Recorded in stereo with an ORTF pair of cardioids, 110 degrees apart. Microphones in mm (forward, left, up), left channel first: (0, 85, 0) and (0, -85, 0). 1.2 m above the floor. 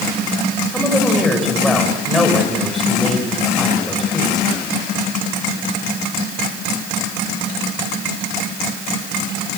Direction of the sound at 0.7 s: Straight ahead.